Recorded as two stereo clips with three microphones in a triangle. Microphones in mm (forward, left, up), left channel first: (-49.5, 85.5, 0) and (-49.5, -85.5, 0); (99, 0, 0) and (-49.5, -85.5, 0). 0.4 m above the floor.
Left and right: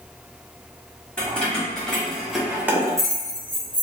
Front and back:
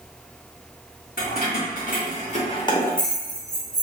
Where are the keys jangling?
10° left, 1.6 m; by 3.8 s 140° right, 0.8 m.